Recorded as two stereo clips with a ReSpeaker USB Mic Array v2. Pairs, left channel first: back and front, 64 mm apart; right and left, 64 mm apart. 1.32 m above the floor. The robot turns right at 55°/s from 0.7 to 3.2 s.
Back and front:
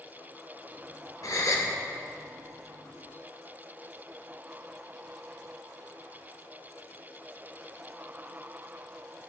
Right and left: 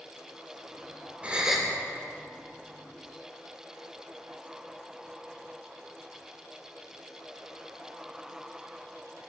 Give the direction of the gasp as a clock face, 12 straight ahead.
7 o'clock.